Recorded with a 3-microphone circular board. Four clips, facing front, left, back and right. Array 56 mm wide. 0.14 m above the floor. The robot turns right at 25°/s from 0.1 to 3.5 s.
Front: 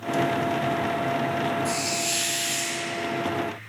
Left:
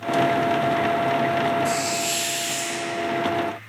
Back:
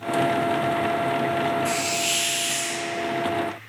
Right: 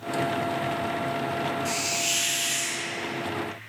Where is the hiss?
Straight behind, 1.1 m; by 2.9 s 150° right, 1.1 m.